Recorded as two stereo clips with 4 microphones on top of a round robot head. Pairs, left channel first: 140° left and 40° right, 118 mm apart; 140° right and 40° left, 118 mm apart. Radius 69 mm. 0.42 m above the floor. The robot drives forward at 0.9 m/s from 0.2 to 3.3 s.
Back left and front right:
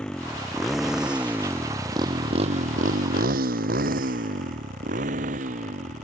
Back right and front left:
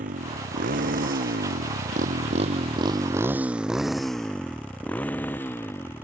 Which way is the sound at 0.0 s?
60° left.